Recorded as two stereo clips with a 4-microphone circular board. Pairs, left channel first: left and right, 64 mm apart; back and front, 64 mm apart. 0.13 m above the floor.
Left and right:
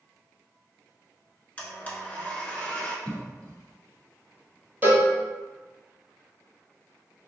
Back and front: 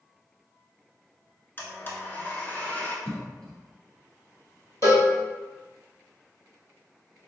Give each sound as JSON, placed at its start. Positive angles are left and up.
{"t": 1.6, "sound": "a blender", "azimuth_deg": 145, "distance_m": 0.7}
{"t": 3.0, "sound": "a cough", "azimuth_deg": 110, "distance_m": 1.1}
{"t": 4.8, "sound": "a cowbell", "azimuth_deg": -150, "distance_m": 1.0}